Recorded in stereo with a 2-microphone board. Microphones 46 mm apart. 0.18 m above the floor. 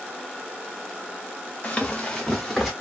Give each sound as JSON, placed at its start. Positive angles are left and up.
{"t": 1.6, "sound": "running footsteps", "side_deg": 30, "distance_m": 0.9}